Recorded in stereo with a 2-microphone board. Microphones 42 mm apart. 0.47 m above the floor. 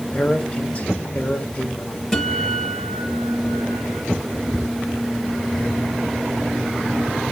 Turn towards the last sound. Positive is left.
turn(degrees=5)  # may be behind; listen again after turning